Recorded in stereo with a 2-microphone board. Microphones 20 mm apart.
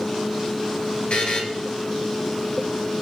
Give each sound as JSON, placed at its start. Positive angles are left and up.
{"t": 1.1, "sound": "a buzzer", "side_deg": 65, "distance_m": 2.5}